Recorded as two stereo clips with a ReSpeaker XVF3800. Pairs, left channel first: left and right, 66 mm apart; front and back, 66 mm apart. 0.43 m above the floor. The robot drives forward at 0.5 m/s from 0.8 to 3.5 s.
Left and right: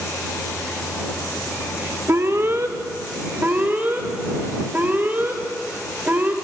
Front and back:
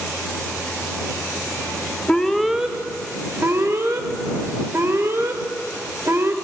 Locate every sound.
2.1 s an alarm: 70° right, 0.6 m; by 6.3 s 145° right, 0.8 m